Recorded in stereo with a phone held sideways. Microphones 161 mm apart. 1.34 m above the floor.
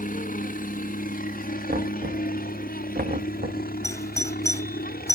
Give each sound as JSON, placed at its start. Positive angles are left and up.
{"t": 0.0, "sound": "a helicopter", "side_deg": 60}
{"t": 1.7, "sound": "knocking", "side_deg": -85}
{"t": 3.8, "sound": "a doorbell", "side_deg": 20}